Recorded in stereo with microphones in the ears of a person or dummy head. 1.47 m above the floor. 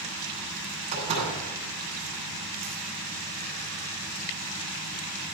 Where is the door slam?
35° right (ahead or behind), 9 m.